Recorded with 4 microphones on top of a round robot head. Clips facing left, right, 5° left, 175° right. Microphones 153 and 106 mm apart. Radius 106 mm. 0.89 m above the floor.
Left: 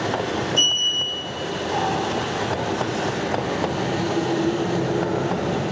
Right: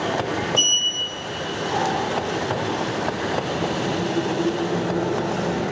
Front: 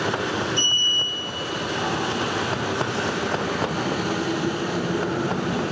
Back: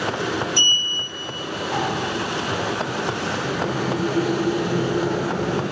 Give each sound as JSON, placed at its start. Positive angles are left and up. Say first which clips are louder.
{"t": 0.6, "sound": "a sliding door", "louder": "left 1 dB, even", "azimuth_deg": 180, "distance_m": 1.0}